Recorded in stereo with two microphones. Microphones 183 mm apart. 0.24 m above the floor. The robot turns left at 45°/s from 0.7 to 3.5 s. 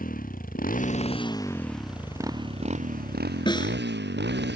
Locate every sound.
0.0 s a motorcycle: 50° left (ahead or behind); by 4.6 s 75° right (ahead or behind)
3.5 s a snare drum: 25° left (ahead or behind)